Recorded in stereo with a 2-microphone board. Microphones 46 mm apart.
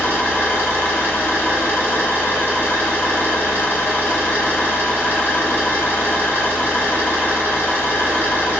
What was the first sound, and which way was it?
An engine running, 50° left (ahead or behind).